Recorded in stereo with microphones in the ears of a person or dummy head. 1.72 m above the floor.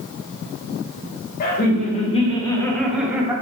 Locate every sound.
1.4 s laughter: 45° left (ahead or behind), 1.3 m; by 3.3 s 20° right (ahead or behind), 0.9 m